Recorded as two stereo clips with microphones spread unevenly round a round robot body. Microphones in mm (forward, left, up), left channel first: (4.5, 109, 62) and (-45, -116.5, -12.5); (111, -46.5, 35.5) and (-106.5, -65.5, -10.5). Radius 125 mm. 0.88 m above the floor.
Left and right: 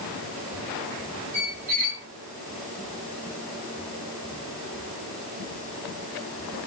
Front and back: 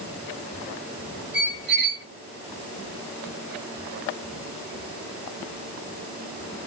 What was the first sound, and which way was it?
A squeak, 135° right.